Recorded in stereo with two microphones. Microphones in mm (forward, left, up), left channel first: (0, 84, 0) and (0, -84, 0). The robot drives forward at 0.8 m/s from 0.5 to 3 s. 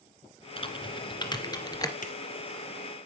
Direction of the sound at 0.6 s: 35° left (ahead or behind).